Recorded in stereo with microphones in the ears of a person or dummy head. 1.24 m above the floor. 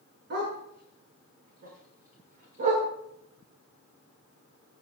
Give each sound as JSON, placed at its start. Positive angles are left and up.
{"t": 0.3, "sound": "a dog barking", "side_deg": -60, "distance_m": 8.5}